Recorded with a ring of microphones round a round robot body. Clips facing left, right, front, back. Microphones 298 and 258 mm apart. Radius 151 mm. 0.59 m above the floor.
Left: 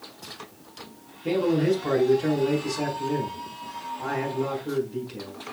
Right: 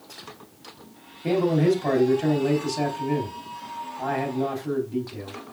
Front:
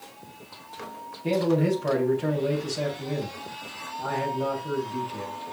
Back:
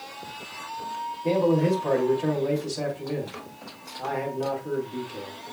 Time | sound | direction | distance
1.2 | a man speaking | 70° right | 3.5 m